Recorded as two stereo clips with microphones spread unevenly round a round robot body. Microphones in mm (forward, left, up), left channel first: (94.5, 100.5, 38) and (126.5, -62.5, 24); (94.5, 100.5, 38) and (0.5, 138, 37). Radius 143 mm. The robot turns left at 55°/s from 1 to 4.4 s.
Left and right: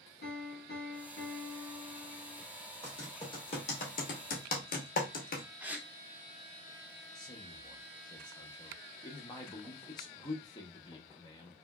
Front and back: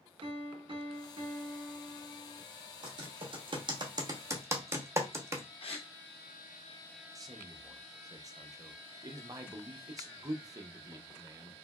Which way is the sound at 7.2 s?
155° left.